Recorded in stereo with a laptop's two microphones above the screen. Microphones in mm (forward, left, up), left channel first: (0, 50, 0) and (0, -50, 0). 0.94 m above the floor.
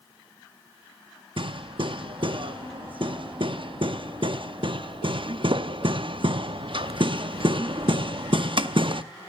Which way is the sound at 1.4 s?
60° right (ahead or behind).